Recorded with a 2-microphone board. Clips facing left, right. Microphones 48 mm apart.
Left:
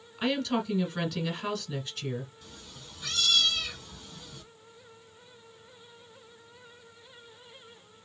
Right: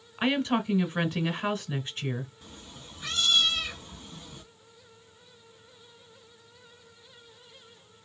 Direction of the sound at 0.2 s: 30° right (ahead or behind).